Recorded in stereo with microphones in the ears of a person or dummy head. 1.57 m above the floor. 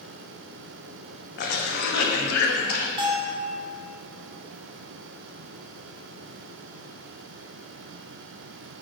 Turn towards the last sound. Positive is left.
turn(degrees=-20)  # may be behind; listen again after turning